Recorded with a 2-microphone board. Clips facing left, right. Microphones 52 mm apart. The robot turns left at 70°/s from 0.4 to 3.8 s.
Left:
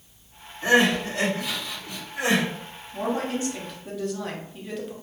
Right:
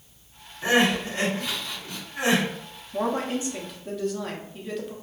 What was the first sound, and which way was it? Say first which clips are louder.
Crying: left 2 dB; 10° right (ahead or behind).